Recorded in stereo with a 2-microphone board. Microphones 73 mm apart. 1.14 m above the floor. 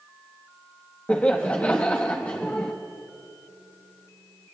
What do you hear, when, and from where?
1.1 s laughter: 20° left (ahead or behind), 1.2 m